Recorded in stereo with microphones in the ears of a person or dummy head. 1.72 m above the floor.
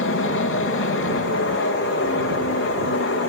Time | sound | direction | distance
0.0 | an aircraft | 60° left (ahead or behind) | ?